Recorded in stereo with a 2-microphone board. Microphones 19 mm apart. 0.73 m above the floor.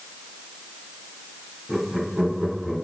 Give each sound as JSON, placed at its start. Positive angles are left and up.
{"t": 1.7, "sound": "laughter", "side_deg": -15, "distance_m": 2.5}